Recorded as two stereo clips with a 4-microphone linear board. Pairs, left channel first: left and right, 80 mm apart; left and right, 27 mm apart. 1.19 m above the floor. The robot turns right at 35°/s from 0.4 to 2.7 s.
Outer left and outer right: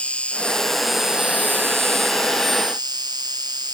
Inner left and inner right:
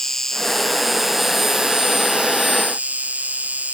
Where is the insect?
165° left; by 3.7 s 115° right.